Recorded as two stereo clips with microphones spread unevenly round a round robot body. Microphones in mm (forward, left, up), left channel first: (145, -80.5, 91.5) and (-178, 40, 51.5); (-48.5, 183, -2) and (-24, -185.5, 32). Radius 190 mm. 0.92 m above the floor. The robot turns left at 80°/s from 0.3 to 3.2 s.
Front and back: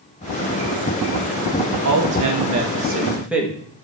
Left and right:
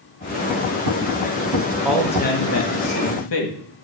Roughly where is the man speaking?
Behind.